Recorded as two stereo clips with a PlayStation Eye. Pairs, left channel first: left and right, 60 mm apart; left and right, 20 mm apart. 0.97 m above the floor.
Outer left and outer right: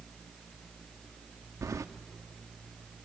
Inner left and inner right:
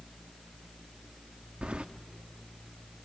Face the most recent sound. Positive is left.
turn(degrees=-65)  # may be behind; listen again after turning